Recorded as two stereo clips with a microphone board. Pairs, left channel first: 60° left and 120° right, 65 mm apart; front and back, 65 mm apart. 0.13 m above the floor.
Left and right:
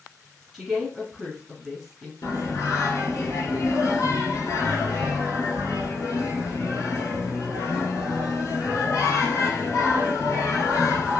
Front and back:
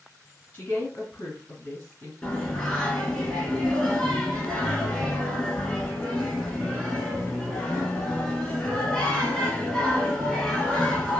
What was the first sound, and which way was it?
A woman speaking, 45° right.